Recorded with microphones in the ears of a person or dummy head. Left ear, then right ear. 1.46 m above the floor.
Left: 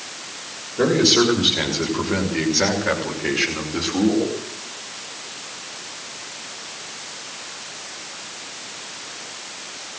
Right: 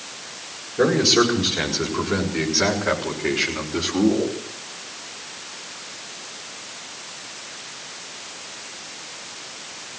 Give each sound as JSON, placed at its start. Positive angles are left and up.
{"t": 0.8, "sound": "a man speaking", "side_deg": -5, "distance_m": 7.0}